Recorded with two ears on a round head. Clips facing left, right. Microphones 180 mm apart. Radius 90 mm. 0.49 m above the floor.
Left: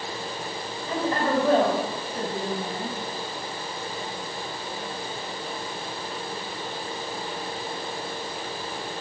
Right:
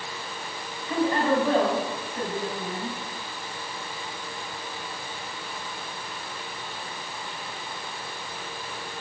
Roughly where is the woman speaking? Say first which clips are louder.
Right 2 dB; left.